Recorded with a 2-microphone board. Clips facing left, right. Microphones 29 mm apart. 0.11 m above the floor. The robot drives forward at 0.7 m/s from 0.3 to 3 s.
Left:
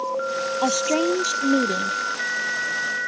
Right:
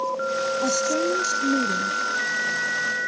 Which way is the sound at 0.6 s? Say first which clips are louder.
Left 5 dB; 65° left (ahead or behind).